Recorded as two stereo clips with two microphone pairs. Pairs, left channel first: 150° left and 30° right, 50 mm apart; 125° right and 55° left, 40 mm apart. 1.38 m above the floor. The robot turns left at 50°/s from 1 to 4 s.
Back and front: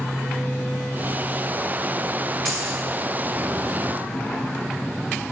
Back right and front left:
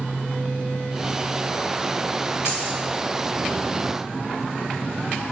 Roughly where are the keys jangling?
Behind right.